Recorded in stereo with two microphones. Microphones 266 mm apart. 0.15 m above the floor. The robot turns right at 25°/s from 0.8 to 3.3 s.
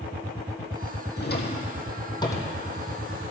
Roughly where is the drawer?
Left.